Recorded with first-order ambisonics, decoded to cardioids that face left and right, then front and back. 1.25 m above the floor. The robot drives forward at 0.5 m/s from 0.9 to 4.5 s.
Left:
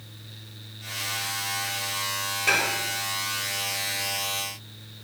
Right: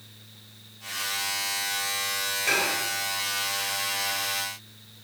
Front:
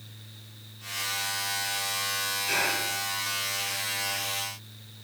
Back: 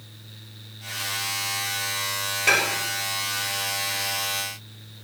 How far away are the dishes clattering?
About 2.5 m.